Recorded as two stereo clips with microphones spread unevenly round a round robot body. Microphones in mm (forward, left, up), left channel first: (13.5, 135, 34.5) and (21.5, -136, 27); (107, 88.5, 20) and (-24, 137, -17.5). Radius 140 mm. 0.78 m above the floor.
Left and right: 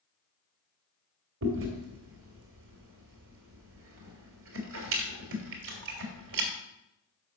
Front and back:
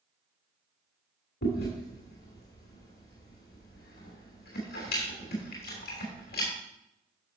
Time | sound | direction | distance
1.4 | chewing | 45° right | 2.5 m